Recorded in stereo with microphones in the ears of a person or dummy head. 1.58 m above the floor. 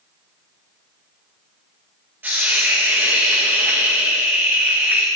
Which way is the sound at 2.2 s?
5° right (ahead or behind).